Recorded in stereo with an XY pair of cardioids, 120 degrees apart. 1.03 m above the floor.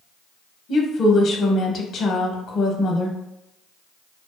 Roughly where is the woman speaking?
Ahead left.